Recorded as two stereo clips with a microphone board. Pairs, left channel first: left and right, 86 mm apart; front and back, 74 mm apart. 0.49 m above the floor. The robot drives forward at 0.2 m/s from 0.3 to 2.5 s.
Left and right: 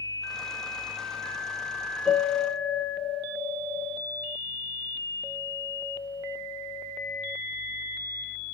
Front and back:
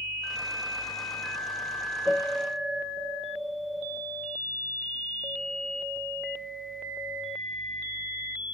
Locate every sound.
2.0 s a piano: 175° left, 1.1 m